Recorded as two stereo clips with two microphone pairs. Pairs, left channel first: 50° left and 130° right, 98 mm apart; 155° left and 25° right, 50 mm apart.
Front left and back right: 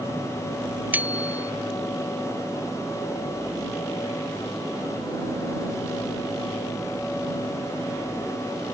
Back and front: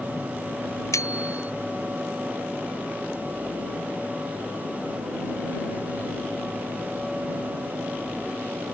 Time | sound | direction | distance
0.9 | a bicycle bell | 155° left | ?